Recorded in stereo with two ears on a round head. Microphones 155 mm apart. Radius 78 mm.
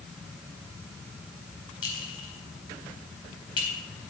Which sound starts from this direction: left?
A clink, at 1.8 s.